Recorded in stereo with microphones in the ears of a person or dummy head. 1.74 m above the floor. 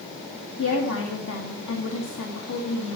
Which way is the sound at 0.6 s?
75° left (ahead or behind).